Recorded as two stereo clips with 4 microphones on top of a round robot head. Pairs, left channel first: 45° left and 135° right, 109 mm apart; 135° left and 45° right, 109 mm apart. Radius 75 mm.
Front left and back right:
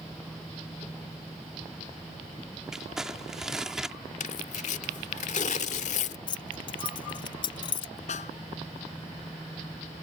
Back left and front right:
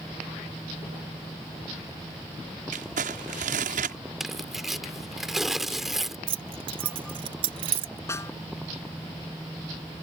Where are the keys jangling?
5° right.